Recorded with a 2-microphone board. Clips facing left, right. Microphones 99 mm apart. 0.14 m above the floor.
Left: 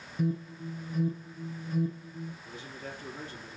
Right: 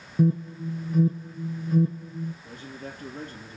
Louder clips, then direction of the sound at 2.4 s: Right 3 dB; 50° right (ahead or behind).